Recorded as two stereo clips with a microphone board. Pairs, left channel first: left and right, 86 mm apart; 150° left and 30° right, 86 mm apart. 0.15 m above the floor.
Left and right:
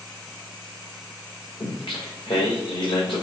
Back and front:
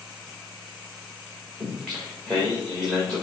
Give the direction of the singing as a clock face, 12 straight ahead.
10 o'clock.